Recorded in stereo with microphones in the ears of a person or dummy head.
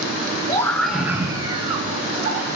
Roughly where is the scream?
Left.